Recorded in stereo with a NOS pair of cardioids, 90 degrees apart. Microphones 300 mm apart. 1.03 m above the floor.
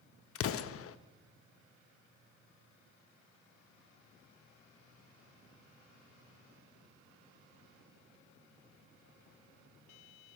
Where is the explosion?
50° left, 0.6 m.